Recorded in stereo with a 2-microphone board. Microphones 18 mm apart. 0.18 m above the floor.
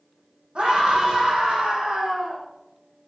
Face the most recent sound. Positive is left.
turn(degrees=-70)  # may be behind; listen again after turning